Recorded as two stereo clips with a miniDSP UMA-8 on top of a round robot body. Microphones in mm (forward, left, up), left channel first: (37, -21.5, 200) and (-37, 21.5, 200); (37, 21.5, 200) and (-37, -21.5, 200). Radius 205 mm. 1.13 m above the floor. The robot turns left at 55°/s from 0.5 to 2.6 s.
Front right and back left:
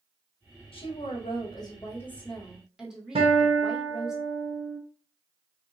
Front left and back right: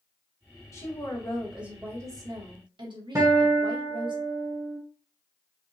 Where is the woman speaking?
25° right, 1.8 m; by 4.2 s 125° right, 1.8 m.